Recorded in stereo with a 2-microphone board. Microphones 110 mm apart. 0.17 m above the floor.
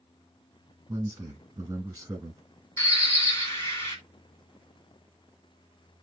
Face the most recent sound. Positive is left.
turn(degrees=25)  # may be behind; listen again after turning